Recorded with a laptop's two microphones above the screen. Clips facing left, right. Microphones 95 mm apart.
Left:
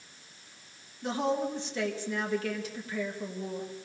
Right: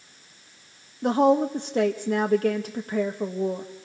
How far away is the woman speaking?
About 0.8 m.